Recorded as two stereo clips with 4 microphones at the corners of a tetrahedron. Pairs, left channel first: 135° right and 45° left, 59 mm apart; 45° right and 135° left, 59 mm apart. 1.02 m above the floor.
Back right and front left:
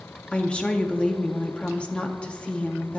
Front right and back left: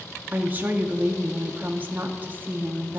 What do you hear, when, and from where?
0.3 s a woman speaking: 165° left, 0.5 m